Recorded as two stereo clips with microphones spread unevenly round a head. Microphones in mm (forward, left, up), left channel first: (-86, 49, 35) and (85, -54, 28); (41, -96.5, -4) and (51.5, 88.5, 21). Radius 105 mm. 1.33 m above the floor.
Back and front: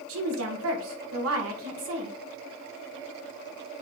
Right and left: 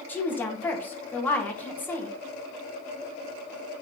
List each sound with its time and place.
0.1 s a woman speaking: 15° right, 1.9 m